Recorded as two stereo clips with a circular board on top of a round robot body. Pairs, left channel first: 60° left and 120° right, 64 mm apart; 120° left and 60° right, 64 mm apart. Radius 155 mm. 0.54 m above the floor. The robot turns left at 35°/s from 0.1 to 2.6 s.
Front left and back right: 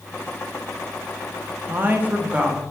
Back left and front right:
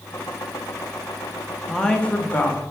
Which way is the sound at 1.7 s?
160° right.